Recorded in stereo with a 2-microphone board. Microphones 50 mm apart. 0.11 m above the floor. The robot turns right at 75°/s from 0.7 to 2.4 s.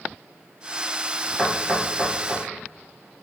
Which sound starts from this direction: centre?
Knocking, at 1.4 s.